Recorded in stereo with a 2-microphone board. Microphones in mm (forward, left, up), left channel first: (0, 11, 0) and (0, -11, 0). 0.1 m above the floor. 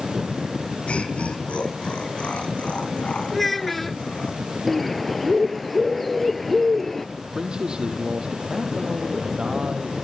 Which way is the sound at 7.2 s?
40° right (ahead or behind).